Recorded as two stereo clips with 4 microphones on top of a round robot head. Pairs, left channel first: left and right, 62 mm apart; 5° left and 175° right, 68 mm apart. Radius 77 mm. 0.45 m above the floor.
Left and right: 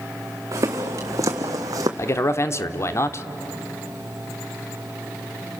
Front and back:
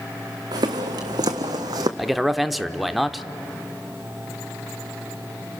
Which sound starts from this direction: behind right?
Footsteps, at 0.5 s.